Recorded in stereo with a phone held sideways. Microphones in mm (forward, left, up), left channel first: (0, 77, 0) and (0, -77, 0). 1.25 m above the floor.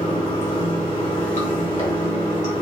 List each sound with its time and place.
0.0 s running water: 50° left (ahead or behind), 1.9 m